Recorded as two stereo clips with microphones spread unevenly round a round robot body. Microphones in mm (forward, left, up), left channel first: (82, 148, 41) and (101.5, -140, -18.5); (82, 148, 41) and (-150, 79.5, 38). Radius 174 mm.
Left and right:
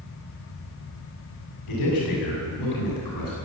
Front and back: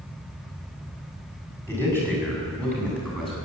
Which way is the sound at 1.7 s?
115° left.